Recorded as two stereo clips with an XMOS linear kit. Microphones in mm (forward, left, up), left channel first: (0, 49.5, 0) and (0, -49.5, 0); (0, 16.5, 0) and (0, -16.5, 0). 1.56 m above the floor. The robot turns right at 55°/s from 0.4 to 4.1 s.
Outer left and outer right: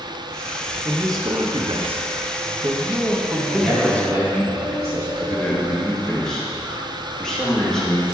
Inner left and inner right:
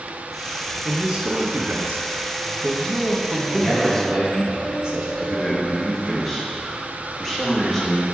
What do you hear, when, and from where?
0.8 s a man speaking: 155° right, 0.8 m; by 4.5 s 25° left, 0.8 m
3.5 s a man speaking: 175° left, 2.5 m; by 5.1 s 150° right, 2.5 m
5.2 s a man speaking: 5° left (ahead or behind), 1.7 m